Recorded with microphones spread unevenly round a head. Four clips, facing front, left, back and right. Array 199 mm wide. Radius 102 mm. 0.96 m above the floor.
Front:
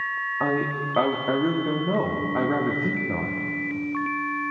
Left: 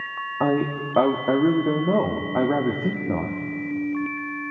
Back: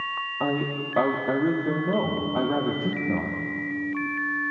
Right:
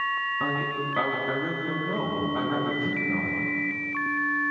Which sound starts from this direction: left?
A man speaking, at 0.4 s.